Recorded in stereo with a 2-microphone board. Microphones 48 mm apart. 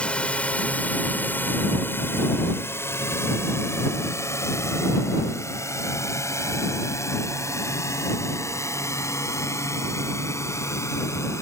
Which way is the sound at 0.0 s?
20° left (ahead or behind).